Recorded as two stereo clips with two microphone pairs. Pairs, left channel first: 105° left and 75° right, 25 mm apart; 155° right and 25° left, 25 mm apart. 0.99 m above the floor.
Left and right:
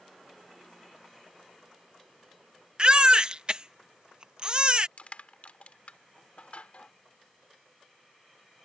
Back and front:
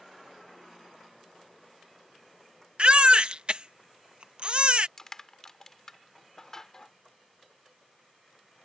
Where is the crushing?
135° left.